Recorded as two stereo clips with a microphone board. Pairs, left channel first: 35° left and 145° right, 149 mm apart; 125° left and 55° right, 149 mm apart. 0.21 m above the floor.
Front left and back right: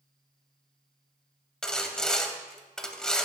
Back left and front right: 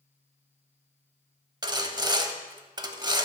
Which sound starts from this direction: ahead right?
Sawing, at 1.6 s.